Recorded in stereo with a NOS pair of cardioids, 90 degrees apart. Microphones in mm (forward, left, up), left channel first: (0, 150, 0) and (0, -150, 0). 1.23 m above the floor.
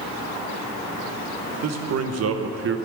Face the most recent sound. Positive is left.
turn(degrees=-50)